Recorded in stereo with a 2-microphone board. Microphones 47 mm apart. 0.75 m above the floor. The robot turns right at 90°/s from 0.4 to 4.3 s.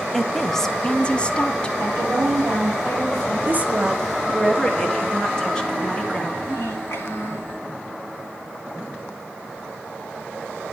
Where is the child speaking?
85° left, 6 m.